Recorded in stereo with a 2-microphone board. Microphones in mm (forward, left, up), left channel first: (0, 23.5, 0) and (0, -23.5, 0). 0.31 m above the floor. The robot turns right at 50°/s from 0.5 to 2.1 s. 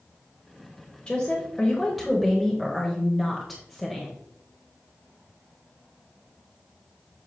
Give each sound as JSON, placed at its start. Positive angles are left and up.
{"t": 1.1, "sound": "a woman speaking", "side_deg": 20, "distance_m": 1.2}